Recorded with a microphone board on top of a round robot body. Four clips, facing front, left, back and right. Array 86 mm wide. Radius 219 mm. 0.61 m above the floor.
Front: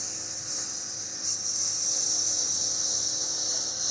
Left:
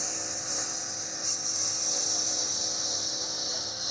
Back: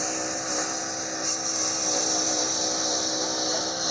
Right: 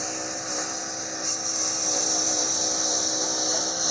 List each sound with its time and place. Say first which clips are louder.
0.0 s a lawn mower: right 7 dB, back 15 dB; 150° right; by 3.9 s 140° right